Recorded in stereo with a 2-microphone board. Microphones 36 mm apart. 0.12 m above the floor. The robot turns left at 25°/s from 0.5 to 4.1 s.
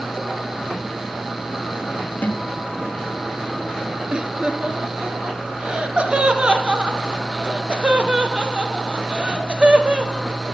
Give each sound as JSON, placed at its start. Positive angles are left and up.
{"t": 2.2, "sound": "a guitar", "side_deg": 65, "distance_m": 3.5}
{"t": 4.1, "sound": "laughter", "side_deg": -30, "distance_m": 1.6}